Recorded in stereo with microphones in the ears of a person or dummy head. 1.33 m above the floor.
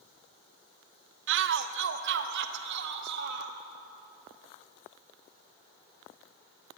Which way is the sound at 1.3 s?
65° right (ahead or behind).